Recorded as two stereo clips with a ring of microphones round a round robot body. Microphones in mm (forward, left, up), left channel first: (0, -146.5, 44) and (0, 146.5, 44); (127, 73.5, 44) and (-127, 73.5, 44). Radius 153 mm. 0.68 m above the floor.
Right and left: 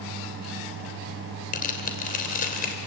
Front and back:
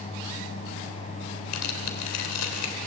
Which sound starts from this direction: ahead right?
Tearing paper, at 1.5 s.